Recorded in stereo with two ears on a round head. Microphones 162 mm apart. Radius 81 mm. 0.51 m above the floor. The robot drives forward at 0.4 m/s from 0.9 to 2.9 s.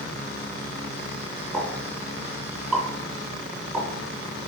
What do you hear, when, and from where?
1.5 s a pop: 5° right (ahead or behind), 3 m